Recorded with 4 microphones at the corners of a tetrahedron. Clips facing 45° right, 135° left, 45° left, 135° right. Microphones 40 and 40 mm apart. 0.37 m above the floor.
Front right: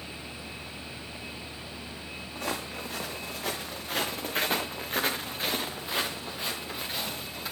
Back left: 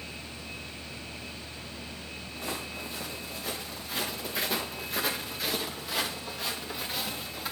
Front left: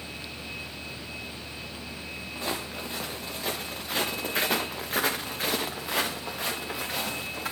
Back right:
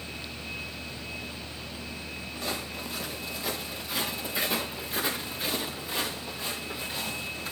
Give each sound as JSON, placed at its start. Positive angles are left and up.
{"t": 2.4, "sound": "footsteps", "azimuth_deg": -15, "distance_m": 4.0}